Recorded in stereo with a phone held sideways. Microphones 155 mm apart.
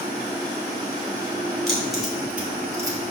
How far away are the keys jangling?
About 3.5 m.